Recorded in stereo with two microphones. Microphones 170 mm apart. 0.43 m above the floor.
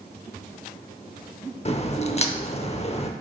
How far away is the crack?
About 0.7 m.